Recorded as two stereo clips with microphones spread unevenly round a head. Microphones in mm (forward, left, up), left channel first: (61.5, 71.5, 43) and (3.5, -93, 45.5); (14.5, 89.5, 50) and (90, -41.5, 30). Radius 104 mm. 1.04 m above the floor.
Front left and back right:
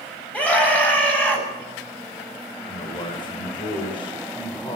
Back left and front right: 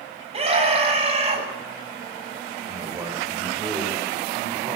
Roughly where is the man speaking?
Ahead.